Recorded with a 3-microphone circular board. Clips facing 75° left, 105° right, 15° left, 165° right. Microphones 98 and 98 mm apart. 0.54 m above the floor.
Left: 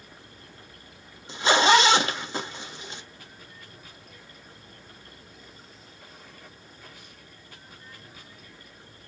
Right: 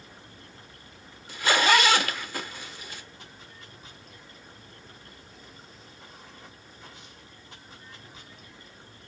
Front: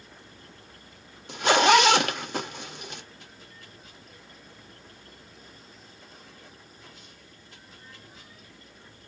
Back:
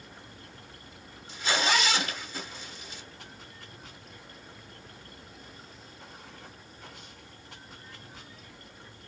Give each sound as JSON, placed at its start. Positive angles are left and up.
{"t": 0.0, "sound": "running water", "azimuth_deg": -170, "distance_m": 2.5}
{"t": 1.3, "sound": "a zipper", "azimuth_deg": 10, "distance_m": 0.7}